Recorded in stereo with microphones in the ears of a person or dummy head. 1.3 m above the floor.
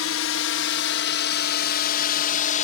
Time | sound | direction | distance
0.0 | a drone | 65° left (ahead or behind) | ?